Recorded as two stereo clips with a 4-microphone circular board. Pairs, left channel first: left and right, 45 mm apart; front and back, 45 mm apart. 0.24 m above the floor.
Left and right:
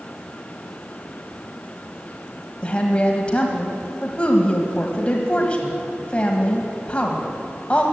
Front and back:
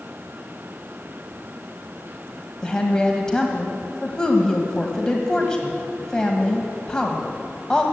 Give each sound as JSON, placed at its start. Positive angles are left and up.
{"t": 2.6, "sound": "a woman speaking", "azimuth_deg": 60, "distance_m": 1.4}